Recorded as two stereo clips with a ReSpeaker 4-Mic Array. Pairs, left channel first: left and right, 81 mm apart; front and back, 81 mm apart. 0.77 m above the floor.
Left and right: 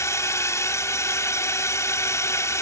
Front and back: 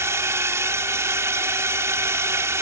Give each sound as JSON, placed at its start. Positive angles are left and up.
{"t": 0.0, "sound": "a drone", "azimuth_deg": 135}